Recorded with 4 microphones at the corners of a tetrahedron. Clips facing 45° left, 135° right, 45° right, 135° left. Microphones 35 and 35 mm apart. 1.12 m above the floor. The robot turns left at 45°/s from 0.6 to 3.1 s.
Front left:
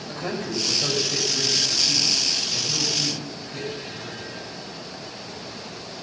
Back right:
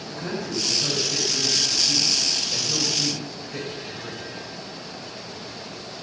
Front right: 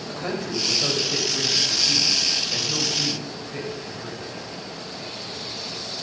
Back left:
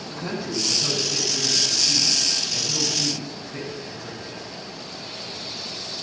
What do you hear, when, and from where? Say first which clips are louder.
0.1 s a man speaking: front left 1 dB, front right 1 dB; straight ahead, 5 m; by 4.2 s 110° right, 5 m